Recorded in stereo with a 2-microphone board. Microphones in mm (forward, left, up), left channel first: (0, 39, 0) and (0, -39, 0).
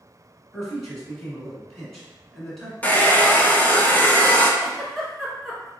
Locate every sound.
0.5 s a man speaking: 5° left (ahead or behind), 1.4 m
2.8 s a hair dryer: 20° left (ahead or behind), 0.7 m
4.6 s a giggle: 5° left (ahead or behind), 1.2 m